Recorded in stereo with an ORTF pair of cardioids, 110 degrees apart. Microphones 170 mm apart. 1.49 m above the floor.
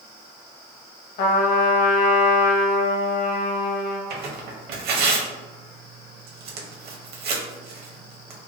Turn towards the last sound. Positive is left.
turn(degrees=-65)